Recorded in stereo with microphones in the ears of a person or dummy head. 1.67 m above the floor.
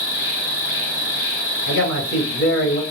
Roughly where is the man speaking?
Left.